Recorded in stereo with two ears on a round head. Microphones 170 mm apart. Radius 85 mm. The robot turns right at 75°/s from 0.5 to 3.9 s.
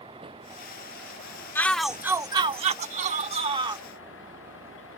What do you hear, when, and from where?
0.0 s a vehicle: 150° right; by 5.0 s 105° left
1.6 s a shout: 160° left; by 3.8 s 30° right